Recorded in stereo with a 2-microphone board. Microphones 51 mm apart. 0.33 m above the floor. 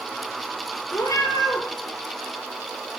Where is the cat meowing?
70° left (ahead or behind), 2 m.